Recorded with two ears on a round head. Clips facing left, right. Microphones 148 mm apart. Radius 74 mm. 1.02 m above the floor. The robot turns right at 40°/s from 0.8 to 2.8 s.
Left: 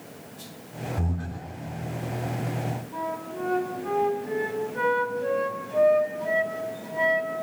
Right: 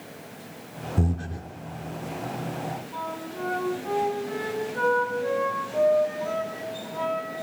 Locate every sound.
1.0 s breathing: 40° right (ahead or behind), 3 m; by 1.5 s 20° right (ahead or behind), 3 m
2.9 s a flute: 20° left (ahead or behind), 7.5 m